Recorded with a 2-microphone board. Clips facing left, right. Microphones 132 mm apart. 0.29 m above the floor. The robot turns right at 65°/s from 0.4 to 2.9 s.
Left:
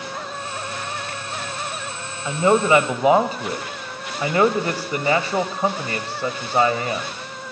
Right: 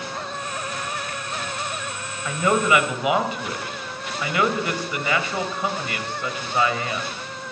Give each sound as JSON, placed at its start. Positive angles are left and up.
{"t": 2.2, "sound": "a man speaking", "azimuth_deg": 35, "distance_m": 1.3}